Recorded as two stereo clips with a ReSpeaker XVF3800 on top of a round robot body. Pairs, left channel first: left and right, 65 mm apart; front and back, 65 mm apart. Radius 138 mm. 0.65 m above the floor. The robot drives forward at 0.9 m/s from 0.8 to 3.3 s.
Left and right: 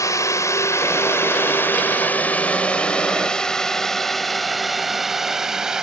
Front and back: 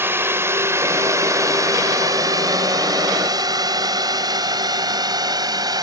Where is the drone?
125° left; by 5.8 s 175° right.